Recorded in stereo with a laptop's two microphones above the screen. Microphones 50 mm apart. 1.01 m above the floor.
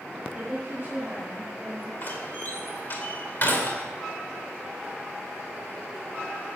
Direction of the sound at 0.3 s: 35° right (ahead or behind).